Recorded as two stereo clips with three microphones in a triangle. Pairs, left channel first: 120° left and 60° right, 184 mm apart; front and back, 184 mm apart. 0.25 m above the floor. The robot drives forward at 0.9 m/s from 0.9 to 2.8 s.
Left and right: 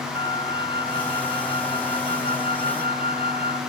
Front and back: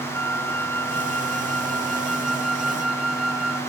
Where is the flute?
80° right; by 3.6 s 90° right.